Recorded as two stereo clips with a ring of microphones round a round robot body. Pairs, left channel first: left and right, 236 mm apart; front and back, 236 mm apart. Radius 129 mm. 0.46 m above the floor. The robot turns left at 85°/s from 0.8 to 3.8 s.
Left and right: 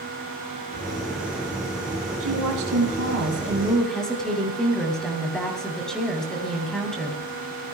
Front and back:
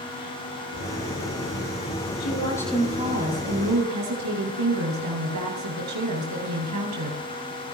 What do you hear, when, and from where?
2.2 s a woman speaking: 45° right, 8.5 m; by 7.2 s straight behind, 8.5 m